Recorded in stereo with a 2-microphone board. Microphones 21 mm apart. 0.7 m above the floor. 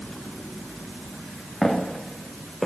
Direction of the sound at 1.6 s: 10° left (ahead or behind).